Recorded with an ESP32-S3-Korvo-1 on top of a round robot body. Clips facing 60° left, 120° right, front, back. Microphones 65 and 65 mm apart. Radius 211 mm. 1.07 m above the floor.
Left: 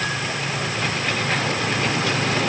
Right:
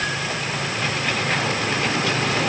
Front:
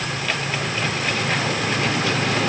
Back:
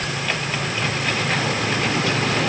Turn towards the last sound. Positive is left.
No sound to turn to.